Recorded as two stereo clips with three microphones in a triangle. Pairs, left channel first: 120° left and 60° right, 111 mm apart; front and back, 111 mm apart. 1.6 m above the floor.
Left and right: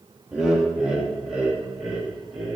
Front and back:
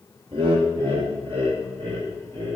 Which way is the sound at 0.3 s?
145° right.